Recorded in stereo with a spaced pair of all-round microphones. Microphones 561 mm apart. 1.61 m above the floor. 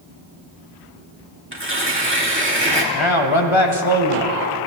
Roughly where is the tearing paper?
Right.